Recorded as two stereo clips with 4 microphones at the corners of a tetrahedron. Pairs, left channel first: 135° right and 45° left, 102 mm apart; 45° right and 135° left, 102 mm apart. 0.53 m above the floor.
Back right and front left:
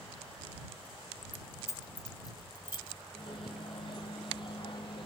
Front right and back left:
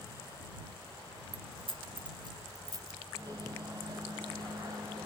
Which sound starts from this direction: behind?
A microwave, at 3.1 s.